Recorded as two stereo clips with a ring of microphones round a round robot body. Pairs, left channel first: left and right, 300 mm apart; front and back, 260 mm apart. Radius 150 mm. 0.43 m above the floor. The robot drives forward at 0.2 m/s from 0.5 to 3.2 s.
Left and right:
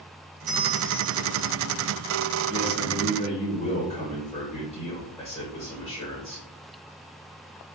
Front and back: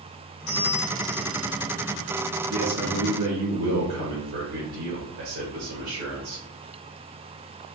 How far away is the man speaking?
About 1.1 m.